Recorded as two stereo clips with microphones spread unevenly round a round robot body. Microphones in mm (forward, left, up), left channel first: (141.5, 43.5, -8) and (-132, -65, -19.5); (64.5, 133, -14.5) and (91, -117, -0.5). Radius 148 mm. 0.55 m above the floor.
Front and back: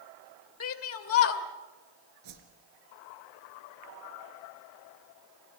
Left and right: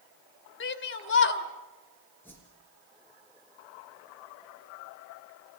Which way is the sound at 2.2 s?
Straight behind.